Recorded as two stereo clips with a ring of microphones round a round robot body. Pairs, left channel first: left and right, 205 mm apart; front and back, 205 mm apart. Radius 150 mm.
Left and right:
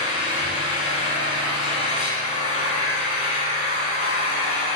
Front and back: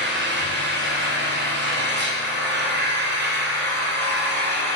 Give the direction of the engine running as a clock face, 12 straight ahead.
7 o'clock.